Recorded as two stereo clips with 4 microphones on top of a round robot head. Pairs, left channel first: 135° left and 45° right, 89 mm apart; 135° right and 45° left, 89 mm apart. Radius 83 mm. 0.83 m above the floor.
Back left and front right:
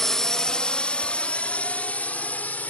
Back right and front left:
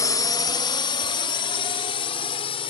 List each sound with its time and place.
0.0 s a drone: 140° right; by 2.7 s 150° right